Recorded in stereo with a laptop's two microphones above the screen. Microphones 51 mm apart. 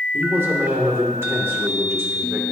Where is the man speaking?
60° right (ahead or behind), 2.5 m.